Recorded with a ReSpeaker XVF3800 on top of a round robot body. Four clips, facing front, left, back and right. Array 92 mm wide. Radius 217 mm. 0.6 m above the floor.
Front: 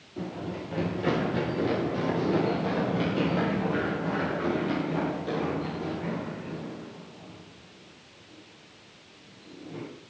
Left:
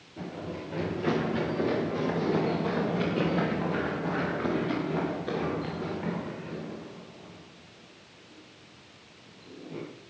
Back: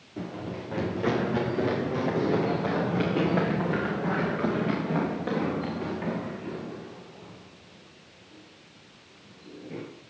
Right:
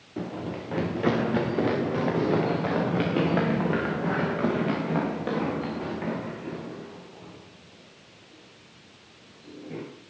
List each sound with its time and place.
0.2 s running footsteps: 100° right, 4 m; by 9.8 s 130° right, 9 m